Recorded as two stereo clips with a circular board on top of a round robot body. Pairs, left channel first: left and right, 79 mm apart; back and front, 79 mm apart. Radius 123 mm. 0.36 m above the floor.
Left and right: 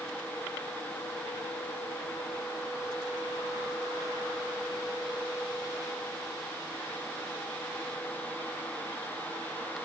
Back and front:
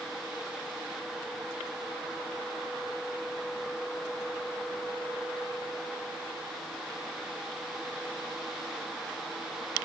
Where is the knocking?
No knocking in this recording.